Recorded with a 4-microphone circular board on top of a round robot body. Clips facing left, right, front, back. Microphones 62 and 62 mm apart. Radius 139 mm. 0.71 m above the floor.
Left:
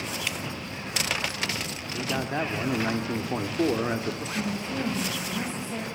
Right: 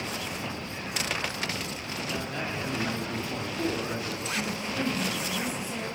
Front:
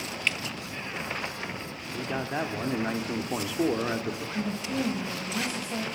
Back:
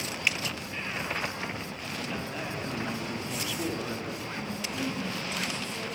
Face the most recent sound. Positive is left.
turn(degrees=20)